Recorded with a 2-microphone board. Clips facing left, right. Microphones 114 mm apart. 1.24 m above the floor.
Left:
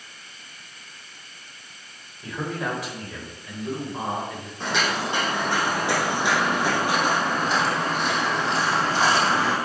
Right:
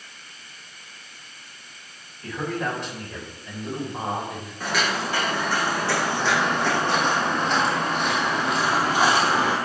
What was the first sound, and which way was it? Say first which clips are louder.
A man speaking: right 1 dB; 10° left (ahead or behind).